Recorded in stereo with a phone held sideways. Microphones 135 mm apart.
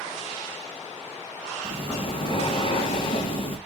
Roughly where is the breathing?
Left.